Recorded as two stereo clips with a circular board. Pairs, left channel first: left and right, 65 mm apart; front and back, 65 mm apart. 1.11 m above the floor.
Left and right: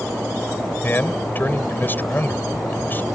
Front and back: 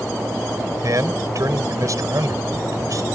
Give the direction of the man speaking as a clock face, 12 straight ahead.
7 o'clock.